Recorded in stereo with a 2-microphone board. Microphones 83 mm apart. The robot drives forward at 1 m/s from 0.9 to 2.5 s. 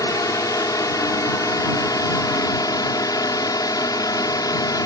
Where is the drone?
45° left (ahead or behind); by 4.9 s 50° left (ahead or behind).